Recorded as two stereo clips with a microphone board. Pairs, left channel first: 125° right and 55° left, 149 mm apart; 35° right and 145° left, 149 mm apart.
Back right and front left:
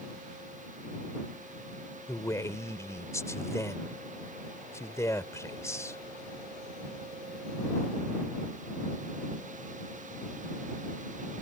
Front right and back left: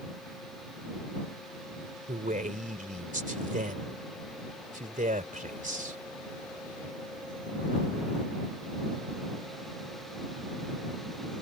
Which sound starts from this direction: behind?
A man speaking, at 2.1 s.